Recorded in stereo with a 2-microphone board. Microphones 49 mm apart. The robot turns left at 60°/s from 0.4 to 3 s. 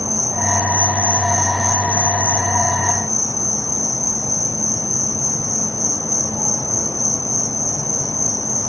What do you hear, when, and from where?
0.0 s an insect: 115° right; by 8.7 s 90° left